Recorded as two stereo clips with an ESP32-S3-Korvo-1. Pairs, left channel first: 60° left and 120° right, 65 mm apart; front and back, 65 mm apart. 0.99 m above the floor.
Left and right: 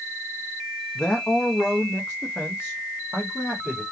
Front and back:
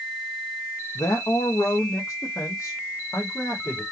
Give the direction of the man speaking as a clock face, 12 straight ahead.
12 o'clock.